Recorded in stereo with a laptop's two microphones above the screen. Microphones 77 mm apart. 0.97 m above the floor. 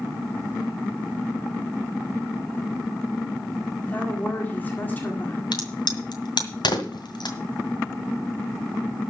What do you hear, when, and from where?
3.9 s a woman speaking: 25° left (ahead or behind), 2.0 m
5.5 s a crack: 75° left (ahead or behind), 1.9 m